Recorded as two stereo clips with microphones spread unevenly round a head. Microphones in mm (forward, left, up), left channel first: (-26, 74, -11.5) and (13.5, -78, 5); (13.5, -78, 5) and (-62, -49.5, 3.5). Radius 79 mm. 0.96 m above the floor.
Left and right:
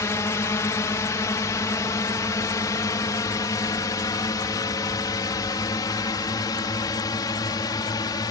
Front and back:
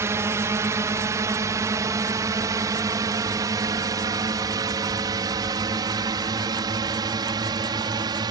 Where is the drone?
160° left; by 8.3 s 165° left.